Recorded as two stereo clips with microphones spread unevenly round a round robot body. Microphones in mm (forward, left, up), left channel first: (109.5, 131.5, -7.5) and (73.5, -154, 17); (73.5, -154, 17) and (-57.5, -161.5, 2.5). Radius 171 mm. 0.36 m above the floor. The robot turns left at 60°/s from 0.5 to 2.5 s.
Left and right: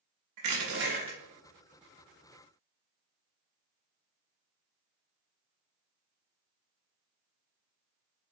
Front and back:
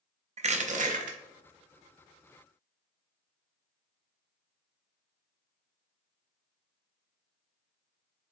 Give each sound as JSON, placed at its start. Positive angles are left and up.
{"t": 0.4, "sound": "crushing", "azimuth_deg": -140, "distance_m": 0.6}